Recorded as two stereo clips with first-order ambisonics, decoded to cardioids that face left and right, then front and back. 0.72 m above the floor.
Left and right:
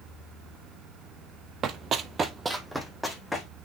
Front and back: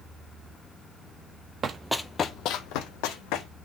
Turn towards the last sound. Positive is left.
turn(degrees=5)